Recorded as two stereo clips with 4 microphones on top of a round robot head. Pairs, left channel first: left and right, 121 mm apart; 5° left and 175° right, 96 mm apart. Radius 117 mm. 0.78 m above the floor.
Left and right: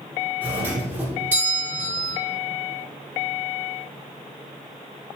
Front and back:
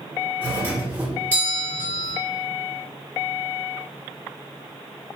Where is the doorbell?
140° right, 1.3 m.